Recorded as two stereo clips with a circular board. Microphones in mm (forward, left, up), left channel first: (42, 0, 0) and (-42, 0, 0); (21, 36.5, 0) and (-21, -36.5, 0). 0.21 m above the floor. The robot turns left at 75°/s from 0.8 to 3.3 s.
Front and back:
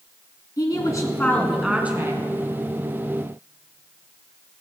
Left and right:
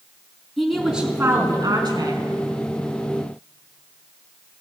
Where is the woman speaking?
30° right, 2.5 m; by 2.2 s 135° right, 2.5 m.